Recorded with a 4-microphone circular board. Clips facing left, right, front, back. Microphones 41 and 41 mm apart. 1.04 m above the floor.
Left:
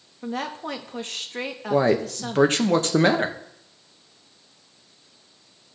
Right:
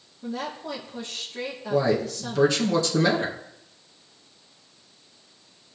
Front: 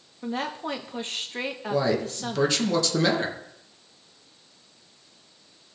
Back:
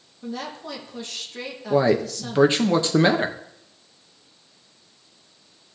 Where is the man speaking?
125° left, 0.9 m.